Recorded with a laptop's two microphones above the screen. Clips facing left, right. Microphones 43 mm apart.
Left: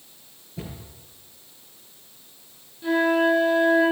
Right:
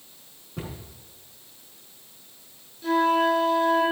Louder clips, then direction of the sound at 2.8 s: Left 1 dB; 10° left (ahead or behind).